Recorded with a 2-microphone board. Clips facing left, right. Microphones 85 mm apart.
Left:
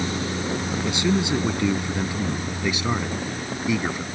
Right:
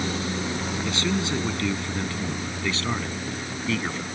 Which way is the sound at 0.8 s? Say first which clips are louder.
Left 5 dB; 20° left (ahead or behind).